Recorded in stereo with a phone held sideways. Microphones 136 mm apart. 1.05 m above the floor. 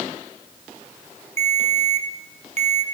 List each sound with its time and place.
1.4 s a ringtone: 50° right (ahead or behind), 1.3 m